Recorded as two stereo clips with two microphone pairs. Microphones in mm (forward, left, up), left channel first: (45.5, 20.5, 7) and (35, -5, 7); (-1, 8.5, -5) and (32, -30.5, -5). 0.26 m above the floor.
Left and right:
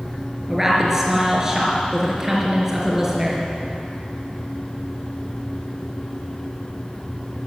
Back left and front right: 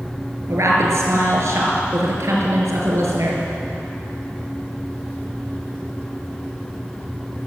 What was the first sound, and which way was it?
A woman speaking, 40° right.